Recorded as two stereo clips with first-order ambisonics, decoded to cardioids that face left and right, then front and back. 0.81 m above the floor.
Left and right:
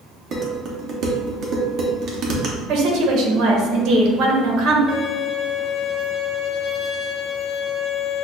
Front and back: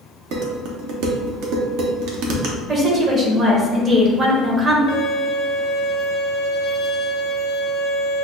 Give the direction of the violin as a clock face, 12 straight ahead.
11 o'clock.